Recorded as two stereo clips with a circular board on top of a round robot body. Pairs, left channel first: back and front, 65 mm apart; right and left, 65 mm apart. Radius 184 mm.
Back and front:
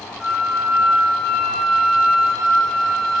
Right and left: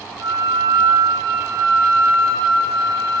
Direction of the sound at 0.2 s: 90° left.